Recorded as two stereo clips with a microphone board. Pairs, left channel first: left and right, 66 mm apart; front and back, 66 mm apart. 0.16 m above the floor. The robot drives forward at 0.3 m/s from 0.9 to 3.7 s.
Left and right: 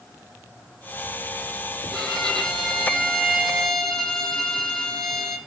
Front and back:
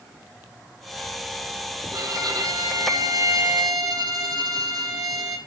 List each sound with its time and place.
1.9 s a violin: 170° left, 5 m